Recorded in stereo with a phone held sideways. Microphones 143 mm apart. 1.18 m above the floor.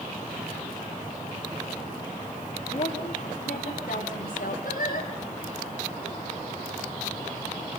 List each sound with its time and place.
2.7 s a woman speaking: 65° left (ahead or behind), 3 m; by 4.5 s 85° left, 5 m
4.6 s singing: 90° left, 5 m